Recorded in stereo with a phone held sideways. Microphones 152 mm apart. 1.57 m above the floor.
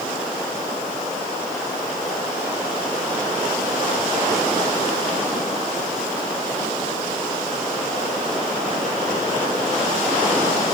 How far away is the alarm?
I don't hear an alarm.